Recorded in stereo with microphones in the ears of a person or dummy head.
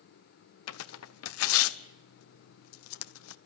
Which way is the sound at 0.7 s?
85° left.